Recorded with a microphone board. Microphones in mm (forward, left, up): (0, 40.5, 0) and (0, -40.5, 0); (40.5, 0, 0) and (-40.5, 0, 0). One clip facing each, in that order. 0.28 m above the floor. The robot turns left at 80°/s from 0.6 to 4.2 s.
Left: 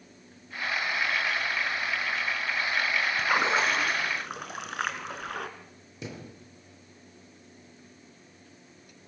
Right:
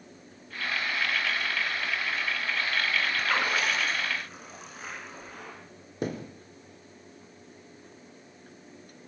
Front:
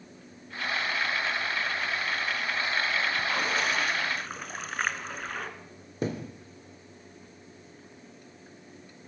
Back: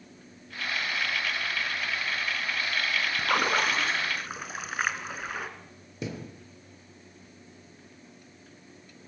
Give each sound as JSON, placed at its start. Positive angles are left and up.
{"t": 3.2, "sound": "a splash", "azimuth_deg": 175, "distance_m": 2.0}
{"t": 6.0, "sound": "a thud", "azimuth_deg": -50, "distance_m": 3.0}